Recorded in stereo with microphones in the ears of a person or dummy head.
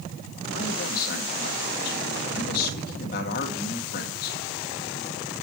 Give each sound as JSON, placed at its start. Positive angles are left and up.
{"t": 0.5, "sound": "a man speaking", "side_deg": 60, "distance_m": 1.9}